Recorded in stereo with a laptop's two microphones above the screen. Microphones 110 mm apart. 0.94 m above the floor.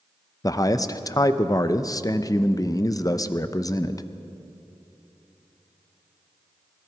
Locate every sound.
0.4 s a man speaking: 30° left (ahead or behind), 0.6 m